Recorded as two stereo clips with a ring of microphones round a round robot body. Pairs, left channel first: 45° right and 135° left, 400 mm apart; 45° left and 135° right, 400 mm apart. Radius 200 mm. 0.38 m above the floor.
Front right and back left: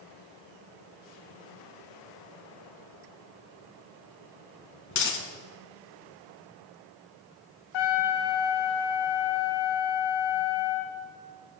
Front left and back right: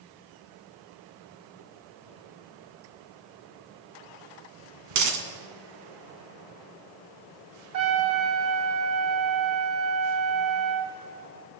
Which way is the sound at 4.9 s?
105° right.